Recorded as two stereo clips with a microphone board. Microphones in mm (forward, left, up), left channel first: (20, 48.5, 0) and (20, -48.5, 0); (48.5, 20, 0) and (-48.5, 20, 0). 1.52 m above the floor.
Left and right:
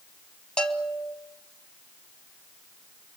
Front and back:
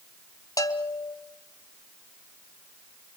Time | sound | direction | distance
0.6 | a bell | 15° left | 1.7 m